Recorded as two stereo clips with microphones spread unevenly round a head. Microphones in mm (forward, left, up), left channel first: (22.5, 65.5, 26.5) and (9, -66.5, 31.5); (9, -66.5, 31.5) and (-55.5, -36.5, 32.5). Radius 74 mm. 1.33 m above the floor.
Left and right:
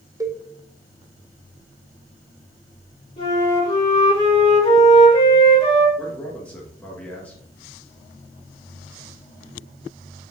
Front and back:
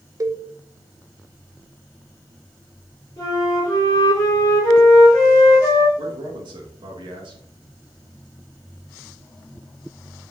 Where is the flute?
35° left, 3 m.